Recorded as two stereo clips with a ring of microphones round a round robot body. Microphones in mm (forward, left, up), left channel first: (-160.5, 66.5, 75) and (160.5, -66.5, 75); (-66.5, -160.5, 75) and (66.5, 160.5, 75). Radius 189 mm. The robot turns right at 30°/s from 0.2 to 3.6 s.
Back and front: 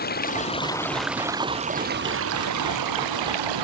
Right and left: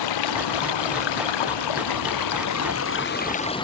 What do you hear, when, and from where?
0.0 s running water: 135° right; by 3.6 s 35° right